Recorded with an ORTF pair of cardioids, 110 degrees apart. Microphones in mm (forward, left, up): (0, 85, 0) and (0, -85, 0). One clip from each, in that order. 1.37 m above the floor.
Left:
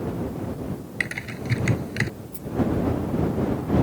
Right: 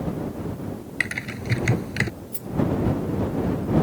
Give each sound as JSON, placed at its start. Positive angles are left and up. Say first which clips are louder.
{"t": 1.0, "sound": "typing on a keyboard", "louder": "right 2 dB", "azimuth_deg": -10}
{"t": 2.3, "sound": "a rattle", "louder": "even", "azimuth_deg": -40}